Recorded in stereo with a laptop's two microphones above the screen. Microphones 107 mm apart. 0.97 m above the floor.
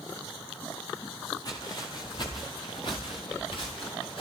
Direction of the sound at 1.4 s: 45° left (ahead or behind).